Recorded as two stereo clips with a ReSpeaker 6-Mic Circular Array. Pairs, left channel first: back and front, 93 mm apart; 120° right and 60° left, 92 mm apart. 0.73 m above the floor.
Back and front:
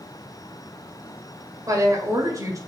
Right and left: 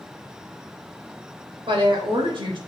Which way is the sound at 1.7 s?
50° left.